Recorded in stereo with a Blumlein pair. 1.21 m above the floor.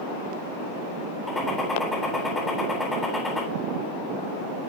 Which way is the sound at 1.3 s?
10° left.